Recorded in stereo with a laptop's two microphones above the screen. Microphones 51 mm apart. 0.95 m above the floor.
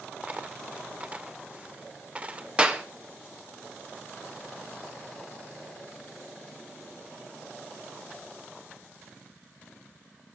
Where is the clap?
20° right (ahead or behind), 1.0 m.